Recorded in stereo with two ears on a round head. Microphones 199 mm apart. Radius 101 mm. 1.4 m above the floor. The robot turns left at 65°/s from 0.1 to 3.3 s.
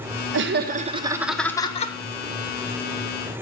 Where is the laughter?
115° right, 1.1 m; by 1.9 s 140° left, 1.1 m.